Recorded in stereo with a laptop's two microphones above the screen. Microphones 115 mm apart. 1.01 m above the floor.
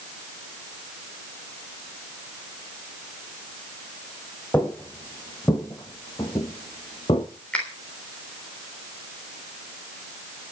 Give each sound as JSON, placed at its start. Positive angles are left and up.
{"t": 4.5, "sound": "footsteps", "side_deg": 15, "distance_m": 2.0}
{"t": 7.5, "sound": "a finger snap", "side_deg": 10, "distance_m": 3.5}